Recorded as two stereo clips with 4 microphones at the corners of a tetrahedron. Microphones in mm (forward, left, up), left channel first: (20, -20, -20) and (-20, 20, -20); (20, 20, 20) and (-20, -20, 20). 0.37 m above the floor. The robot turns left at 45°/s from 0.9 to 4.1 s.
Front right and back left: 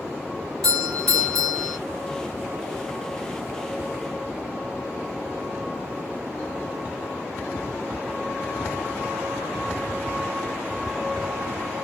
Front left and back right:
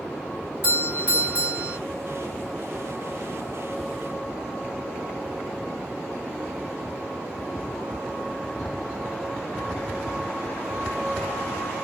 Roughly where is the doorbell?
Right.